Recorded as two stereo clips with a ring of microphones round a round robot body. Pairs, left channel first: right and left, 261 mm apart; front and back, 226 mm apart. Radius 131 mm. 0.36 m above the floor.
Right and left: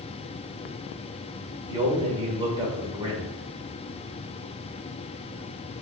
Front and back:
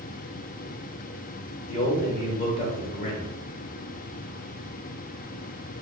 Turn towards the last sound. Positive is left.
turn(degrees=25)